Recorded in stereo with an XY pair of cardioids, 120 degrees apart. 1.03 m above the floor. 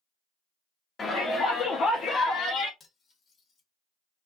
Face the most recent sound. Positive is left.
turn(degrees=45)